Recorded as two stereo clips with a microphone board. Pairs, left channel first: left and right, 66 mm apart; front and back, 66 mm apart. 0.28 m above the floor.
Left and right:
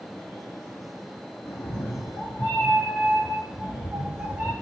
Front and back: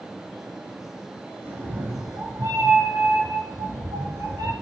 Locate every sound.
1.4 s a cat meowing: 120° left, 1.1 m; by 4.5 s 160° right, 1.8 m